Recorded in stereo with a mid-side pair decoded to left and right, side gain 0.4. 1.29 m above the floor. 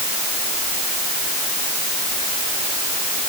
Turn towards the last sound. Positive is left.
No sound to turn to.